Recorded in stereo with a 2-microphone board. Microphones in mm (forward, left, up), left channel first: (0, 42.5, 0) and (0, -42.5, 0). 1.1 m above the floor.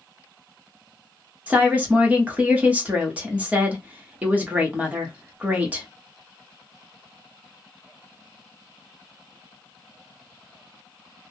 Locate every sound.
1.5 s a woman speaking: 15° right (ahead or behind), 0.9 m